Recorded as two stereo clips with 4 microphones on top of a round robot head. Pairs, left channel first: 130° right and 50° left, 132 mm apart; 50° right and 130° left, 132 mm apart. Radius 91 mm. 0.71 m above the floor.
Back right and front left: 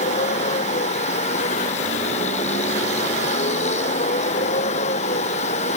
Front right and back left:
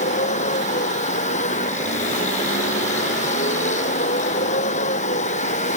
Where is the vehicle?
90° right.